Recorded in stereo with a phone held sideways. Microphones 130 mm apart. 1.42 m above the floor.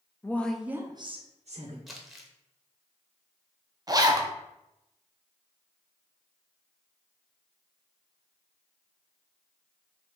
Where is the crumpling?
Centre (ahead or behind), 0.7 m.